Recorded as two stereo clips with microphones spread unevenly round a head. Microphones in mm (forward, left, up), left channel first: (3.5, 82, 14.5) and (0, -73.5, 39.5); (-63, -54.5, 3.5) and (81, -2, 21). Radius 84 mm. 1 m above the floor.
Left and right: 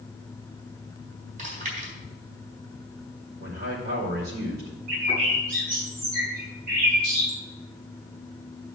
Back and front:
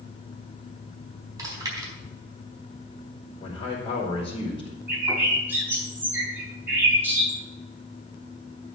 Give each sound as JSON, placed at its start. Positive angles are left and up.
{"t": 1.4, "sound": "chewing", "azimuth_deg": -45, "distance_m": 4.5}
{"t": 3.4, "sound": "a man speaking", "azimuth_deg": -105, "distance_m": 3.0}
{"t": 4.9, "sound": "a bird", "azimuth_deg": -55, "distance_m": 4.0}